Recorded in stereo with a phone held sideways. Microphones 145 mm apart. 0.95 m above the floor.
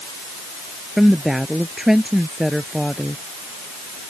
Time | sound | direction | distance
1.0 | a woman speaking | centre (ahead or behind) | ?